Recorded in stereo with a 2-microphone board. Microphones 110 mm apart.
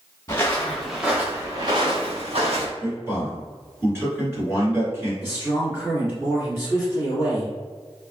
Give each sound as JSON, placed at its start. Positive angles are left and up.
{"t": 0.3, "sound": "footsteps", "side_deg": 25, "distance_m": 1.2}
{"t": 2.8, "sound": "a man speaking", "side_deg": -25, "distance_m": 1.6}
{"t": 5.2, "sound": "a man speaking", "side_deg": -25, "distance_m": 1.9}